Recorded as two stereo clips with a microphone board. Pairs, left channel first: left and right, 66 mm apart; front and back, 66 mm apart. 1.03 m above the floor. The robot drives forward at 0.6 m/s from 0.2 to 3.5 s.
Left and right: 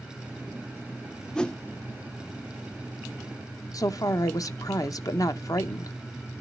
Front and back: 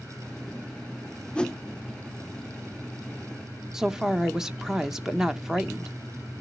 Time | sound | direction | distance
1.4 | a whoosh | 35° left | 0.6 m
3.7 | a woman speaking | 100° left | 0.8 m